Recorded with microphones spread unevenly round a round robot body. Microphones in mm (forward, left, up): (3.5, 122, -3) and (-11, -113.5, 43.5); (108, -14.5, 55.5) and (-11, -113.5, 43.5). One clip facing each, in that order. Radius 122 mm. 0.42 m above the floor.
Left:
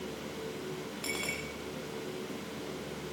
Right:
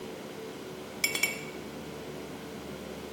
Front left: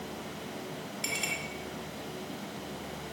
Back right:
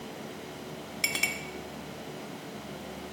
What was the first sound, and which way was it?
A clink, 140° right.